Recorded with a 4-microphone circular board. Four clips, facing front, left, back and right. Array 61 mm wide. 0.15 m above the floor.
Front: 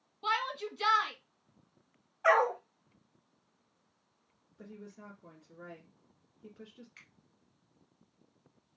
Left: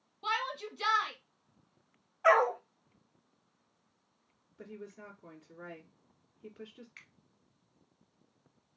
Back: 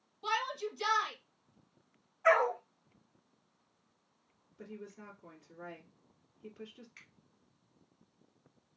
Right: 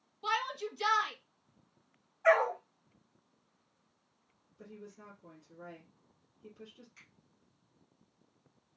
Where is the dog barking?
60° left, 1.9 m.